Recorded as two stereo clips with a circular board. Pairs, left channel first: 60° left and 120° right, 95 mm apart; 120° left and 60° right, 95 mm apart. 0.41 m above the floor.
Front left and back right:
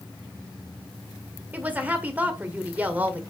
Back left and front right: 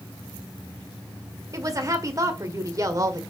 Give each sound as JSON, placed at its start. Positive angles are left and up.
{"t": 1.5, "sound": "a woman speaking", "azimuth_deg": -60, "distance_m": 1.6}